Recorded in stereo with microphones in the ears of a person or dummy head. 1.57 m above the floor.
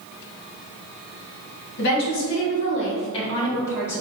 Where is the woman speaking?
60° left (ahead or behind), 1.5 m; by 4.0 s 10° left (ahead or behind), 1.6 m.